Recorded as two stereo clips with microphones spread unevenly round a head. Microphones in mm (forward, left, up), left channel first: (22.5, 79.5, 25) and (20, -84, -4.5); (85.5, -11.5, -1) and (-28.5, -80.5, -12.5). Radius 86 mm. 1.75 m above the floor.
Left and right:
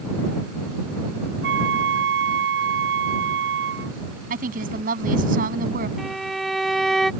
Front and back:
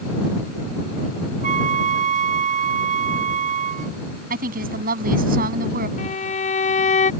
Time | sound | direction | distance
1.4 | a flute | 125° right | ?
4.3 | a woman speaking | 140° right | ?
6.0 | a violin | straight ahead | ?